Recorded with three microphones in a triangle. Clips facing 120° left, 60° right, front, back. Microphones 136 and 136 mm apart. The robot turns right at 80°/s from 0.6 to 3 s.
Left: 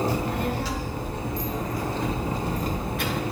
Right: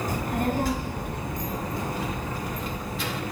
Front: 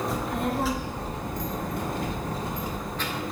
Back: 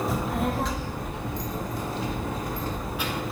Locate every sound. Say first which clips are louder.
0.1 s a child speaking: even, back 1 dB; 90° right, 0.7 m; by 3.2 s 100° left, 0.7 m